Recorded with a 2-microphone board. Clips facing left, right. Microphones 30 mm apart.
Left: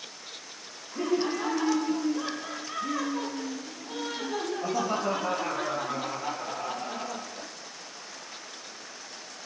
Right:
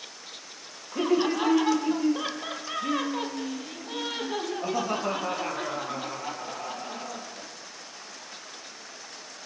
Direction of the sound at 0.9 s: 65° right (ahead or behind).